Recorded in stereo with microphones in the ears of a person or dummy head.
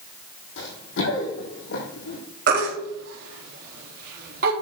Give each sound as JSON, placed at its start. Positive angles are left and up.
{"t": 0.6, "sound": "running footsteps", "side_deg": 70, "distance_m": 4.0}
{"t": 2.5, "sound": "a baby crying", "side_deg": -45, "distance_m": 3.0}